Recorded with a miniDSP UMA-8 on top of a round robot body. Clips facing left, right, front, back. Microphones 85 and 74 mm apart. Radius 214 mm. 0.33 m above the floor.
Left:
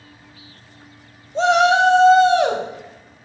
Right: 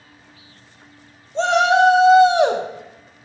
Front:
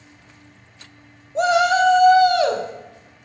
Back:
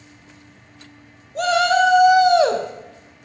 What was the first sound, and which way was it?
A shout, 15° left.